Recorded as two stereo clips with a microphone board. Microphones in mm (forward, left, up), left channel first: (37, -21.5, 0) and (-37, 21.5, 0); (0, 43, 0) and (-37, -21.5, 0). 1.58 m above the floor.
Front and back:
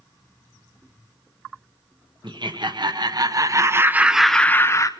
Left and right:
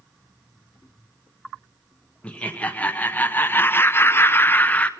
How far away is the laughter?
About 1.5 m.